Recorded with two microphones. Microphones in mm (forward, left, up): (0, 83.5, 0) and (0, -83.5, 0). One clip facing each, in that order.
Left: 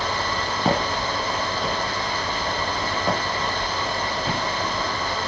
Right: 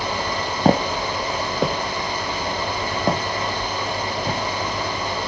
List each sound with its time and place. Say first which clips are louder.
0.7 s footsteps: right 5 dB; 45° right (ahead or behind), 1.5 m; by 4.4 s 25° right (ahead or behind), 4.5 m